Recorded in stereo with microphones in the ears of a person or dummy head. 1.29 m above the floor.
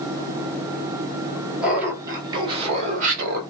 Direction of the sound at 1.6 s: 5° right (ahead or behind).